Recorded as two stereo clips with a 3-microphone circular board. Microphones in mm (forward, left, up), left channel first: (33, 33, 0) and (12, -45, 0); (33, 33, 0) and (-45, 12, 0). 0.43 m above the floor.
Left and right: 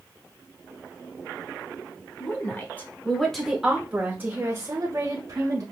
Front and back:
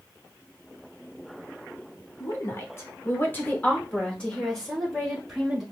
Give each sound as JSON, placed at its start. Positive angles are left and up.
{"t": 2.2, "sound": "a woman speaking", "azimuth_deg": 40, "distance_m": 1.3}